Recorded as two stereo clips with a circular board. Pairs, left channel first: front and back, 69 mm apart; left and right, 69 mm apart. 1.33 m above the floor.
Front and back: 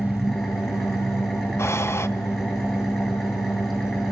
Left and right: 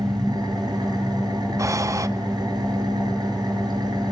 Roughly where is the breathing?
Ahead right.